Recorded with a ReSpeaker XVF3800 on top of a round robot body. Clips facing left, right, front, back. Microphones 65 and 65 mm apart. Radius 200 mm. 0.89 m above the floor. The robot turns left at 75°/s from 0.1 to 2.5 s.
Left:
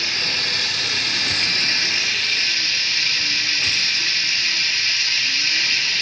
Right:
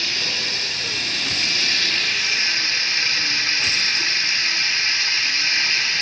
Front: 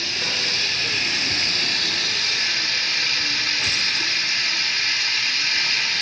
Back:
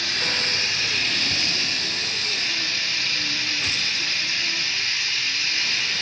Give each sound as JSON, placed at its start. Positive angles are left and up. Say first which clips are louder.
{"t": 0.0, "sound": "running water", "louder": "left 1 dB, back 1 dB", "azimuth_deg": 155, "distance_m": 0.9}